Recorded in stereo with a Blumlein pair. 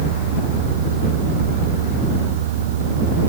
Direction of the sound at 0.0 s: 55° right.